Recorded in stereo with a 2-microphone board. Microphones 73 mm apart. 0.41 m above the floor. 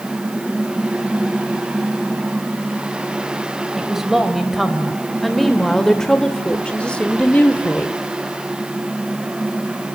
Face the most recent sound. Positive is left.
turn(degrees=25)  # may be behind; listen again after turning